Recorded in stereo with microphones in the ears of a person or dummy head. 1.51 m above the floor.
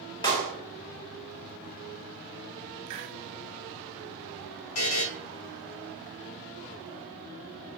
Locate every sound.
0.2 s a clap: 20° left (ahead or behind), 3 m
2.9 s a hiss: 30° right (ahead or behind), 1.2 m
4.8 s a buzzer: 80° left, 1.8 m